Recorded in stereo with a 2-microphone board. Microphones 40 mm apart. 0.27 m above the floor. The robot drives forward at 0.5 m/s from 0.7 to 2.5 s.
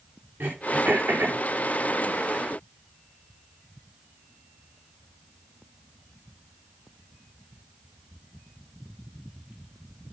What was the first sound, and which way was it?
Throat clearing, 55° right (ahead or behind).